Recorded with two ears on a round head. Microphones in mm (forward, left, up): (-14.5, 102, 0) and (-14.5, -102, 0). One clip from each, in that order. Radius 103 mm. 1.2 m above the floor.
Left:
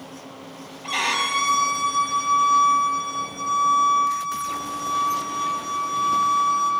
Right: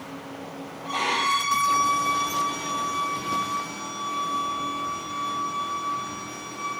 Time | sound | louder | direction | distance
0.8 | a violin | left 1 dB | 75° left (ahead or behind) | 6.5 m